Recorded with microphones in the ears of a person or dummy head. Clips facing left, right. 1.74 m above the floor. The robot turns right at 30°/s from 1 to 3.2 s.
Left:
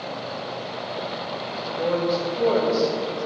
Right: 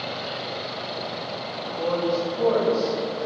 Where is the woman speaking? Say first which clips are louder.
Left 1 dB; 15° left, 1.6 m; by 3.3 s 60° left, 1.6 m.